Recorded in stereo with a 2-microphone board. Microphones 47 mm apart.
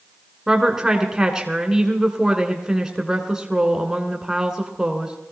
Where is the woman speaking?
15° right (ahead or behind), 1.6 m.